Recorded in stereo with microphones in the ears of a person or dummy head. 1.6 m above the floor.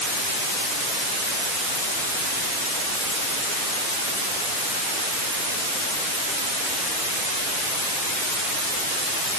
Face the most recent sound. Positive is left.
No sound to turn to.